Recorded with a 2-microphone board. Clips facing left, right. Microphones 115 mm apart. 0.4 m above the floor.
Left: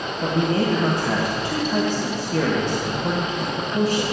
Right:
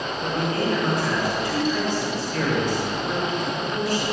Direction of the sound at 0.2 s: 65° left (ahead or behind).